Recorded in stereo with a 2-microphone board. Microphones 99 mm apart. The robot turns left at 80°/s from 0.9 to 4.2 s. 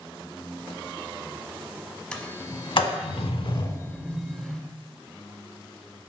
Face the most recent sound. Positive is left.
turn(degrees=5)  # may be behind; listen again after turning